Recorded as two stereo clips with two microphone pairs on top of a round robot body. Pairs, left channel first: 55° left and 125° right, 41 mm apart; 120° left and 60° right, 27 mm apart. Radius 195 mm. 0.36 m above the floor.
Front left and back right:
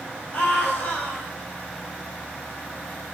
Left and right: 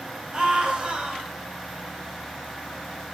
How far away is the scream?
About 3.5 m.